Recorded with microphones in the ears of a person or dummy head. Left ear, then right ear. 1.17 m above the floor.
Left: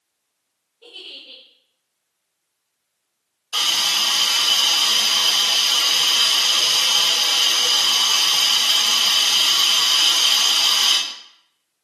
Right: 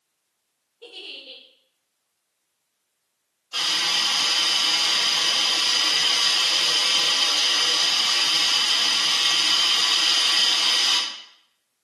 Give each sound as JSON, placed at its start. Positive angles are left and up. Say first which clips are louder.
{"t": 0.8, "sound": "a giggle", "louder": "left 1 dB", "side_deg": -35, "distance_m": 0.7}
{"t": 3.5, "sound": "a hiss", "louder": "left 3 dB", "side_deg": 60, "distance_m": 1.6}